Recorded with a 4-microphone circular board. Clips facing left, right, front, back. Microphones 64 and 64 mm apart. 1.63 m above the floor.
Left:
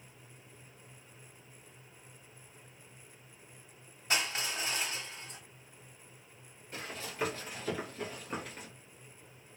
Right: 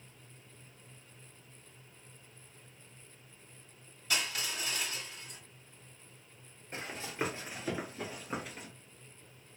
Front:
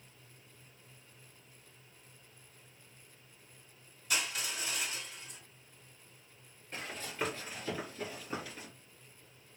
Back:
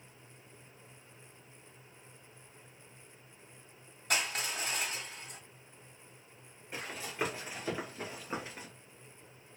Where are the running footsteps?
110° right, 1.9 m; by 8.7 s 175° left, 1.7 m.